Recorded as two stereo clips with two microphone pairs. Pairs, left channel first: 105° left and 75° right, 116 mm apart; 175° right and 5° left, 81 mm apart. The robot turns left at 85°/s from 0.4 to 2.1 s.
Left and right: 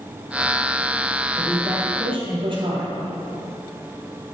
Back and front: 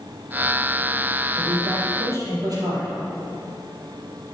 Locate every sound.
1.4 s a woman speaking: 25° left, 4 m; by 3.0 s 35° right, 4 m